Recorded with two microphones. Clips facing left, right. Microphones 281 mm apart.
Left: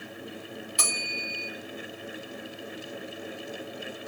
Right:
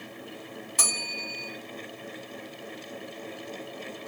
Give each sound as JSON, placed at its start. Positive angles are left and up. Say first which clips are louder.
{"t": 0.8, "sound": "a bell", "louder": "left 1 dB", "side_deg": -55, "distance_m": 2.5}